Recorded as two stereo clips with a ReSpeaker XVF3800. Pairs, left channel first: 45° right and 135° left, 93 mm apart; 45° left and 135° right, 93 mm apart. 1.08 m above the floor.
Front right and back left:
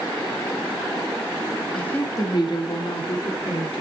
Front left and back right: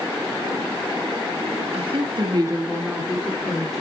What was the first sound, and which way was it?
A woman speaking, 125° right.